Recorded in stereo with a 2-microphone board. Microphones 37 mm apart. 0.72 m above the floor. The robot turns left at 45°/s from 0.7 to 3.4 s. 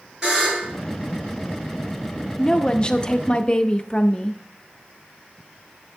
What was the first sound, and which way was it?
A buzzer, 15° right (ahead or behind).